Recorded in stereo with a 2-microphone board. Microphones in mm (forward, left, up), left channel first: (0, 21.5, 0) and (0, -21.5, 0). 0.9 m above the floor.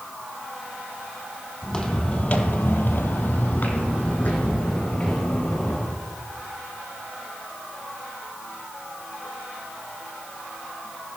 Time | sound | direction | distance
1.6 | footsteps | 10° left (ahead or behind) | 1.9 m